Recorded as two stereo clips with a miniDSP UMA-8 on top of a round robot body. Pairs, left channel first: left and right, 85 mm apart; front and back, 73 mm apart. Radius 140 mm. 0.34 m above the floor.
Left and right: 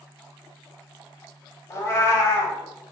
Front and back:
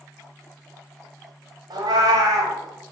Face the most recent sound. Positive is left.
turn(degrees=150)